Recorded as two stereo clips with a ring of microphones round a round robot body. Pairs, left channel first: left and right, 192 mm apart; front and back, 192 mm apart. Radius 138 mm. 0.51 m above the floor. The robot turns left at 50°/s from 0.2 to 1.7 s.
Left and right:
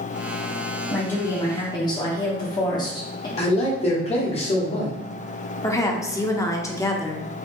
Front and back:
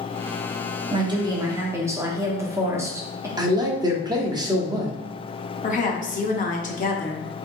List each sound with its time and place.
0.9 s a woman speaking: 165° left, 0.9 m; by 3.3 s 125° left, 0.9 m
3.4 s a man speaking: 125° left, 0.9 m
5.6 s a woman speaking: 20° left, 0.8 m